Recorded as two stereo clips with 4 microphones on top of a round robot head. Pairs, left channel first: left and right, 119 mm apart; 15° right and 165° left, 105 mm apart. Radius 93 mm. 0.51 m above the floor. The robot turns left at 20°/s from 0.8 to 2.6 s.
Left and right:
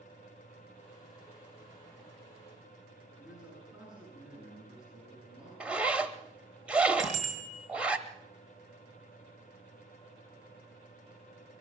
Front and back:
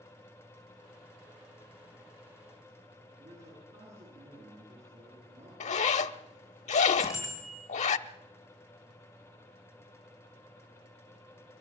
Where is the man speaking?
170° right, 9.5 m.